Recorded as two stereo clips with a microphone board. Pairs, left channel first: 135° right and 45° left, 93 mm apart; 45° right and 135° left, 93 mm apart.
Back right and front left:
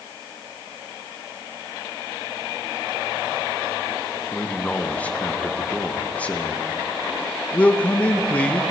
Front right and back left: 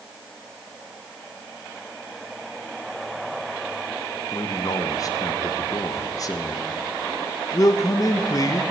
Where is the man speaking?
65° right, 0.8 m.